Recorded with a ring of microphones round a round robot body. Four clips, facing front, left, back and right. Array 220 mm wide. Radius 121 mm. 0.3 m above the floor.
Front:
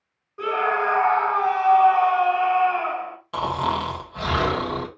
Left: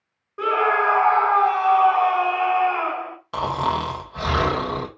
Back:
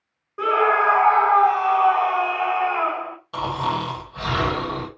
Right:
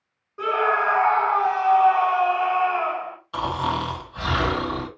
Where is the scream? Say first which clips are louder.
Left 2 dB, back 4 dB; 140° left, 1.9 m.